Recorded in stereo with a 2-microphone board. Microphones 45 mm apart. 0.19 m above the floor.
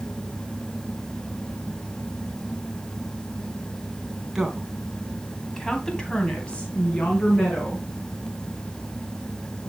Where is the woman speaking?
10° right (ahead or behind), 2 m; by 7.9 s 30° left (ahead or behind), 3 m.